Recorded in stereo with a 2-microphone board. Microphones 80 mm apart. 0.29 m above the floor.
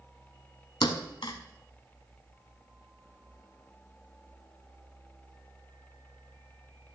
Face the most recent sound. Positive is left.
turn(degrees=70)  # may be behind; listen again after turning